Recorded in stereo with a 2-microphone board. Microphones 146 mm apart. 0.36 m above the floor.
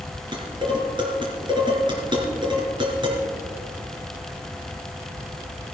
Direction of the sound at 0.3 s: 30° right (ahead or behind).